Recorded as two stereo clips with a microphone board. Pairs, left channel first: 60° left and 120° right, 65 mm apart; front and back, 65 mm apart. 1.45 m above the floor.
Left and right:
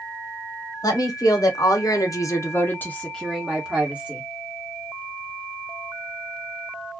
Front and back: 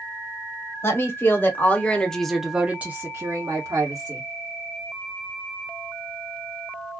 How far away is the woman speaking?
About 1.1 m.